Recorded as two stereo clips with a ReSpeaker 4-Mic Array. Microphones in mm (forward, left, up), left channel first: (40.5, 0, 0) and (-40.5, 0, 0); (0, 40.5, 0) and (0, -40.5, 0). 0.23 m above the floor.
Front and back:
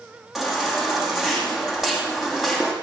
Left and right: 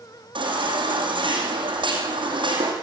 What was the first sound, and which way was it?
A baby crying, 95° right.